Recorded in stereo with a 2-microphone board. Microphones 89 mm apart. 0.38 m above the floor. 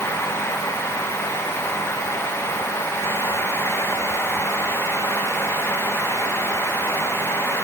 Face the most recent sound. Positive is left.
No sound to turn to.